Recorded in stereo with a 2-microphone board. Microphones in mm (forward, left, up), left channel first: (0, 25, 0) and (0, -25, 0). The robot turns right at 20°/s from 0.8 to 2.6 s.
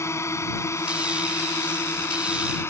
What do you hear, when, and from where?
0.0 s a drone: 65° left (ahead or behind); by 2.7 s 60° left (ahead or behind)